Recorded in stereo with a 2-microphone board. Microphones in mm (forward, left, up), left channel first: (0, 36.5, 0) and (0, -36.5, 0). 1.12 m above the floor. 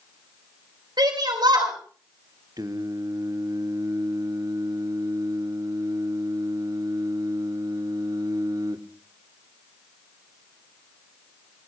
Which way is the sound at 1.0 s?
70° right (ahead or behind).